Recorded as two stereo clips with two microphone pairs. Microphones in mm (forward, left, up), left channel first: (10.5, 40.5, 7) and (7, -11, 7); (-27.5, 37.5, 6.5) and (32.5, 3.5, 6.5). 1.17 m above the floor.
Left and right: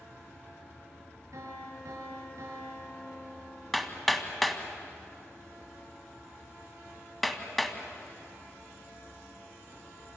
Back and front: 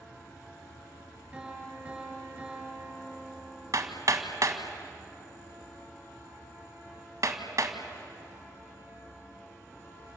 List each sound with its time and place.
1.3 s a piano: 100° right, 7.5 m
3.7 s hammering: 5° left, 2 m